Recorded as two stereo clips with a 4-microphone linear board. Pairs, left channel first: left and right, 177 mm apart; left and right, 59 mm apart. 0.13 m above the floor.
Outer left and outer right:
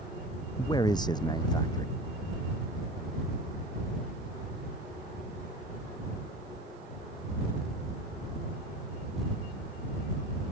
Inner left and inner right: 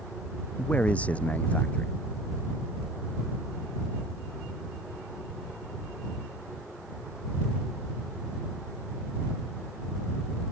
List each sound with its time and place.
0.6 s a man speaking: 25° left (ahead or behind)